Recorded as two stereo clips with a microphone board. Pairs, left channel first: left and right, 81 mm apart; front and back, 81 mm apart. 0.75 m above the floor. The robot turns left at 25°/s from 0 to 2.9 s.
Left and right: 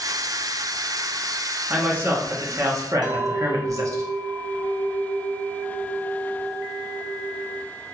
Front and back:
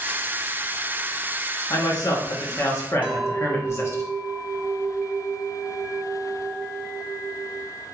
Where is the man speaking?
20° right, 0.9 m; by 4.0 s 50° right, 0.9 m.